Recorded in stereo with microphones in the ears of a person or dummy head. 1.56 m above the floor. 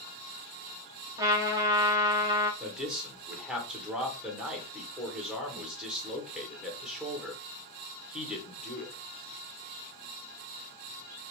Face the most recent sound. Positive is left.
turn(degrees=-5)  # may be behind; listen again after turning